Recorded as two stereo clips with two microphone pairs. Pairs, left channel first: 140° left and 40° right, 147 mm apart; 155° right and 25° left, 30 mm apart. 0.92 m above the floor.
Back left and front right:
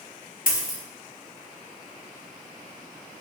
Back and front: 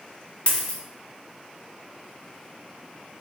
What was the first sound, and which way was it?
A dropped coin, 150° left.